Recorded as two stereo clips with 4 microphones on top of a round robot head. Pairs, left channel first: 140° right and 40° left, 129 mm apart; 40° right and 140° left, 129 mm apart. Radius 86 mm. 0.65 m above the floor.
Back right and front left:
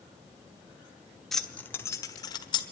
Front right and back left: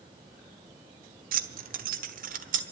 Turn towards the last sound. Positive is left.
turn(degrees=165)